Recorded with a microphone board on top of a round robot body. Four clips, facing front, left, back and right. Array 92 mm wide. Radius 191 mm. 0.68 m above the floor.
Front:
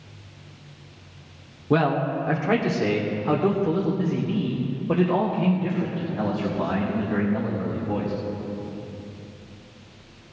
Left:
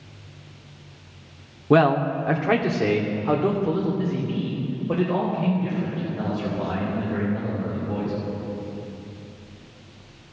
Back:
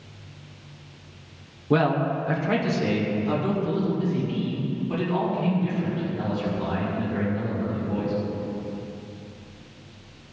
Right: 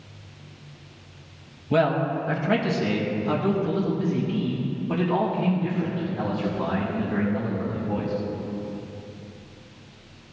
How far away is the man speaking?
About 1.9 m.